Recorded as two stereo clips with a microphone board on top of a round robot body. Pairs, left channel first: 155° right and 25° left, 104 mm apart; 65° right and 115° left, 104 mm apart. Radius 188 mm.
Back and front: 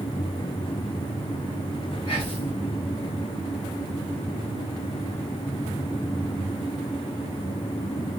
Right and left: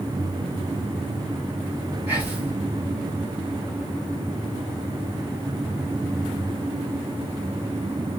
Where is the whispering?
175° right, 2.5 m.